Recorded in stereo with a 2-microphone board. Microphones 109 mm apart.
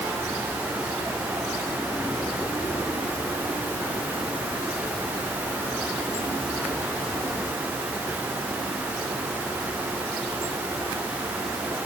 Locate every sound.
Only background noise.